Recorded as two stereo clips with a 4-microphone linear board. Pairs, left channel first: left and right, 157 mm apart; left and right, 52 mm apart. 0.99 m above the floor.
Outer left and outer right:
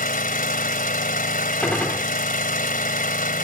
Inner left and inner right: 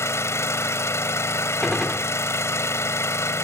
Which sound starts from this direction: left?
An engine running, at 0.0 s.